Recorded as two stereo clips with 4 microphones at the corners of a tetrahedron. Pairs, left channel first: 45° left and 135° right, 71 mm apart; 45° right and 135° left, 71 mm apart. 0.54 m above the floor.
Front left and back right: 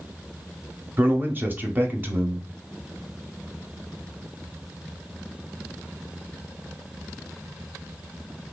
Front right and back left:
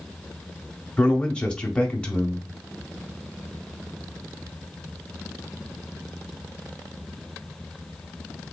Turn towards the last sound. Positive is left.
turn(degrees=-110)